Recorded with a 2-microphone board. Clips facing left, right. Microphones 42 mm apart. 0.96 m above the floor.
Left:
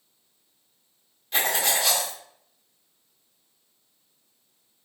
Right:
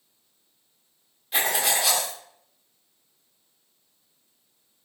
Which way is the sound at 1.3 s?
5° right (ahead or behind).